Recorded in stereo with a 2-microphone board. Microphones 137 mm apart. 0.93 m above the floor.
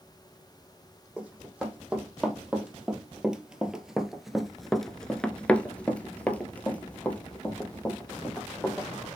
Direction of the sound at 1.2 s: 5° right (ahead or behind).